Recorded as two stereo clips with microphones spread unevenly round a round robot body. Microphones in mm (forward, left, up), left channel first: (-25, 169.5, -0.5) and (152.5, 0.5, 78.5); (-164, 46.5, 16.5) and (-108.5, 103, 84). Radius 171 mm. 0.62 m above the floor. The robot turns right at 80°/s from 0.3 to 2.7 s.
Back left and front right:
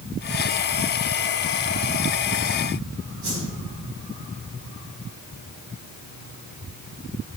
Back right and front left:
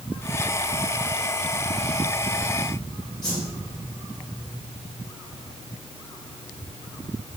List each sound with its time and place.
3.2 s a whoosh: 125° right, 6.5 m